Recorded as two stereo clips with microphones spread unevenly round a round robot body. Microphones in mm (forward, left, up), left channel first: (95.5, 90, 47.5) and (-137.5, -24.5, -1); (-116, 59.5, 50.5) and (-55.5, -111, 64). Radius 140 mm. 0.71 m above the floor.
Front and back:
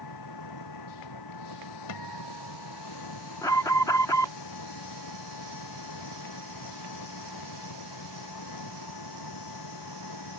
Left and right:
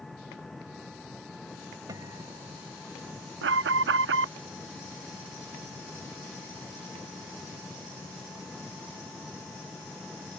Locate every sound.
0.0 s an engine running: 20° left
1.9 s a guitar: 5° left
3.4 s an alarm: 55° right